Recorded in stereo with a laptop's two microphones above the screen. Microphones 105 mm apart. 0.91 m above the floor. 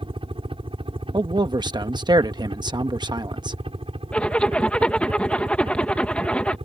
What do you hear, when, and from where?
0.0 s a helicopter: 55° right (ahead or behind); by 6.7 s 65° right (ahead or behind)
1.1 s a man speaking: 45° right (ahead or behind)
4.1 s a zipper: 10° left (ahead or behind)